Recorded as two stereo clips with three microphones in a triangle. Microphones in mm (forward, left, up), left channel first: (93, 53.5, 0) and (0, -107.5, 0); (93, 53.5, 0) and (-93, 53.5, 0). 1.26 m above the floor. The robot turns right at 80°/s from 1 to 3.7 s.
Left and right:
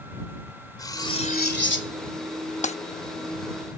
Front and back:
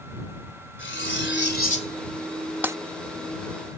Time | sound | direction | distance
0.8 | cutlery clinking | 10° right | ?
2.6 | breaking glass | 100° left | ?